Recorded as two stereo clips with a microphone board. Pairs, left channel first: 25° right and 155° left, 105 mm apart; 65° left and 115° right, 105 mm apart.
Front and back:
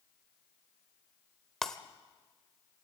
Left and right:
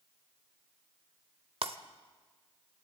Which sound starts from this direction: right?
Breaking glass, at 1.6 s.